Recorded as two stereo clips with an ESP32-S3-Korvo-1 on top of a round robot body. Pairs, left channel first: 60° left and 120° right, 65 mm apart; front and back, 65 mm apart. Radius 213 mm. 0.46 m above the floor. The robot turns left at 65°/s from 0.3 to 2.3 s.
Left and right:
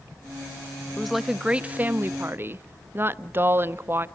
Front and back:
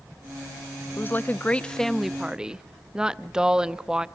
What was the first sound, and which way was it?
A woman speaking, 20° right.